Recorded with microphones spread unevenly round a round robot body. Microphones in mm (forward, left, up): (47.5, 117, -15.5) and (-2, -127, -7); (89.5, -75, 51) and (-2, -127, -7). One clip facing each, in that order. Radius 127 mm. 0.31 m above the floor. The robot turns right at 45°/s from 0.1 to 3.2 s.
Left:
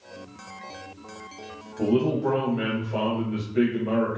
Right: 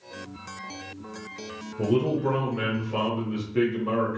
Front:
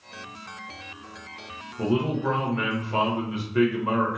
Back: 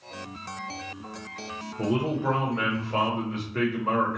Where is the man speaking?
160° right, 1.0 m; by 4.2 s 95° right, 1.0 m.